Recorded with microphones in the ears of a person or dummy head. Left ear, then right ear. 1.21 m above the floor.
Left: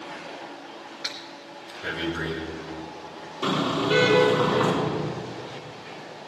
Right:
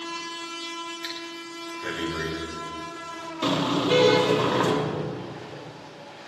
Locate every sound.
1.0 s breathing: 35° right (ahead or behind), 3.5 m
3.4 s a car horn: 85° right, 5 m